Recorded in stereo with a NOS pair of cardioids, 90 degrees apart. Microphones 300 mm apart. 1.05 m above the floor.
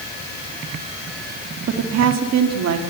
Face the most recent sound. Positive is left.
turn(degrees=-65)